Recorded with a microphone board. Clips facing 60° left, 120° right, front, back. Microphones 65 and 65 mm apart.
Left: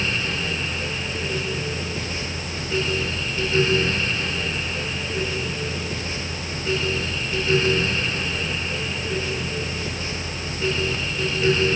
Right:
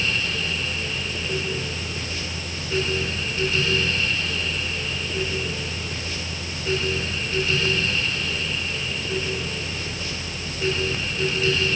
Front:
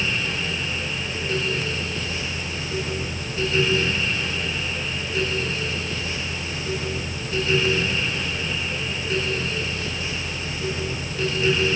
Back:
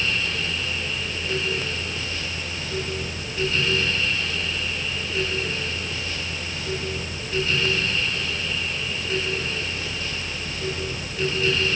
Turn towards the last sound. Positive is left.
No sound to turn to.